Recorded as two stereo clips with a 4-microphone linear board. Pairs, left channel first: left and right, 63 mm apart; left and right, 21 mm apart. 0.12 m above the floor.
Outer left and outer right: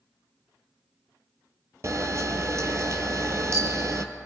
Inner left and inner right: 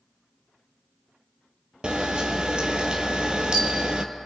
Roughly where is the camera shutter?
Right.